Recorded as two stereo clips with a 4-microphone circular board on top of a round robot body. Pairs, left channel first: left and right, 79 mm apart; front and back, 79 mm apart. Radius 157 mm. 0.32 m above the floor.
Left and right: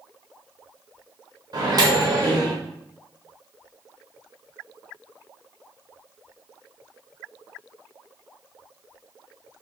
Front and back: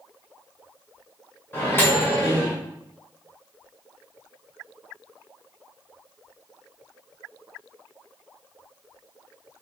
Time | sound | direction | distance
1.5 | a microwave | 55° right | 2 m